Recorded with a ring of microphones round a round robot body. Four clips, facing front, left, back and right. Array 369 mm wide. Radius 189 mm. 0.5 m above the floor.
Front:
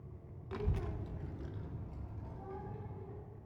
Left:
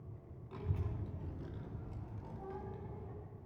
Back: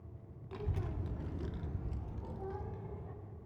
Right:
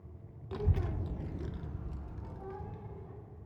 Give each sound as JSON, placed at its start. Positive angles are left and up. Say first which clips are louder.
{"t": 0.5, "sound": "a child speaking", "louder": "right 8 dB, front 2 dB", "azimuth_deg": -70, "distance_m": 0.6}